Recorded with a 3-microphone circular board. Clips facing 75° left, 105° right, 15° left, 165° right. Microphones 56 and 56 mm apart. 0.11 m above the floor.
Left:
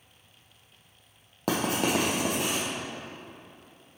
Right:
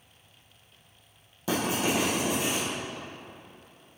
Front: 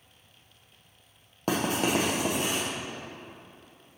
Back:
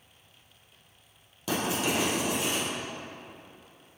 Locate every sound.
1.5 s writing: 55° left, 2.5 m